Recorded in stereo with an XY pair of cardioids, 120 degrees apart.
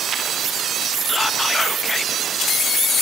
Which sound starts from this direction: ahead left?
Whispering, at 1.1 s.